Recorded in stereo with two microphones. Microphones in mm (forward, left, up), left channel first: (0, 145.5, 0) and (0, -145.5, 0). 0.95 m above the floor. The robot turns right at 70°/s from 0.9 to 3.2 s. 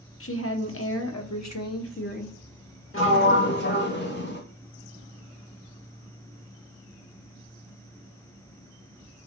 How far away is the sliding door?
About 0.8 m.